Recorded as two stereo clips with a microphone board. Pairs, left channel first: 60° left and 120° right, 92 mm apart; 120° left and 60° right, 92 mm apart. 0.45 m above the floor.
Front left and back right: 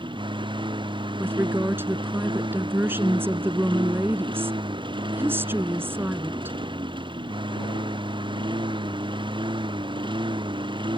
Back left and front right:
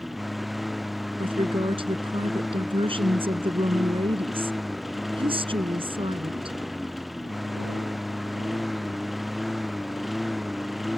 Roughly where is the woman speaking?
Ahead right.